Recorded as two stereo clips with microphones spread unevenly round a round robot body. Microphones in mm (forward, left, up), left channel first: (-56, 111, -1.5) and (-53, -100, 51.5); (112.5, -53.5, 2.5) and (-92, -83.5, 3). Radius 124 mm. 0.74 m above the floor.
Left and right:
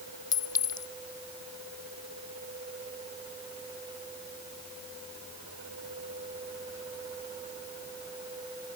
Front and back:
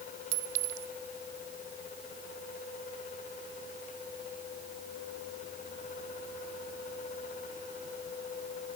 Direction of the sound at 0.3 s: 165° left.